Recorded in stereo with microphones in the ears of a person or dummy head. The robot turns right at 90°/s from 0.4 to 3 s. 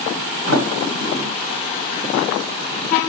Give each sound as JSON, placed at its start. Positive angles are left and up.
{"t": 0.5, "sound": "a sliding door", "side_deg": -65, "distance_m": 1.3}